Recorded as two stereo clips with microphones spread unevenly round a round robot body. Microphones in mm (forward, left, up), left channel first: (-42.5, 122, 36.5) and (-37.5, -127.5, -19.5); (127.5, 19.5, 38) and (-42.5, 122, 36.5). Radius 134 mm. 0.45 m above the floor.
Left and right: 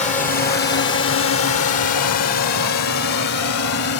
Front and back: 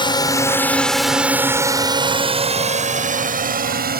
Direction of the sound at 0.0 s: 25° left.